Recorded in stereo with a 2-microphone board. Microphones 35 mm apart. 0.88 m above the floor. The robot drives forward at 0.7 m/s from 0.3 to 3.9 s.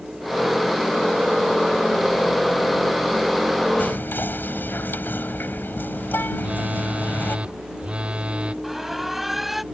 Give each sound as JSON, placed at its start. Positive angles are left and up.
{"t": 3.8, "sound": "whispering", "side_deg": 70}
{"t": 6.4, "sound": "a phone buzzing", "side_deg": -35}
{"t": 8.6, "sound": "an alarm", "side_deg": -5}